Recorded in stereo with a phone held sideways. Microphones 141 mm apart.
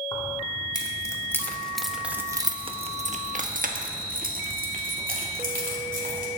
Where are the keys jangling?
35° left (ahead or behind), 2 m; by 6.3 s 75° right (ahead or behind), 3.5 m.